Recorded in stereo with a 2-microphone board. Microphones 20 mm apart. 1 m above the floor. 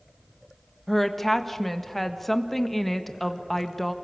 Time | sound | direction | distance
0.9 | a woman speaking | 10° left (ahead or behind) | 1.3 m